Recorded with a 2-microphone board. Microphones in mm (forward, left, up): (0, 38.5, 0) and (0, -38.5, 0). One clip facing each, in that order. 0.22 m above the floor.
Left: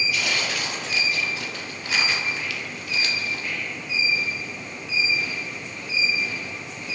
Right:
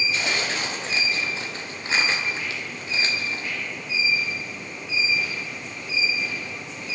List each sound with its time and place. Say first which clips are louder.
0.1 s tearing paper: even; 30° right (ahead or behind), 3.5 m